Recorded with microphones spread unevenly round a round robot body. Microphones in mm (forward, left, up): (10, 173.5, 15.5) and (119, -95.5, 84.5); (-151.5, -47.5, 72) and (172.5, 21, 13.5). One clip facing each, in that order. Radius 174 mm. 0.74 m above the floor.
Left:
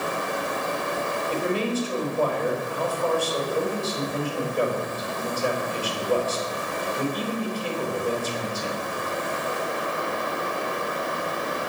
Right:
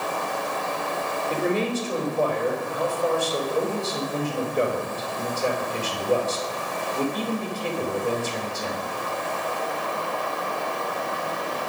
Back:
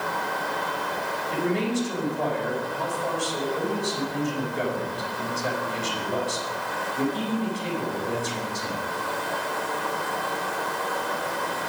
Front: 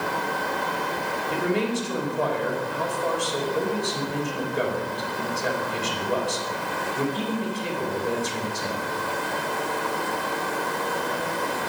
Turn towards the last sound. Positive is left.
turn(degrees=-5)